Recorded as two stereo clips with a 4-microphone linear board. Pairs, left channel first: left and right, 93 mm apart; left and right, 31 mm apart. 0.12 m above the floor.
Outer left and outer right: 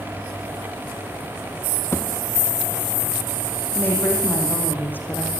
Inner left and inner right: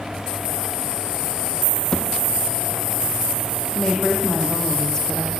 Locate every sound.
1.9 s a thud: 25° left (ahead or behind), 2 m
3.8 s a woman speaking: 20° left (ahead or behind), 6 m